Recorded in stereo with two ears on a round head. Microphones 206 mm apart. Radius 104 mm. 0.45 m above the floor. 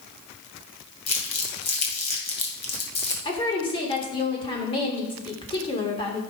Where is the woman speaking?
20° left (ahead or behind), 1.4 m.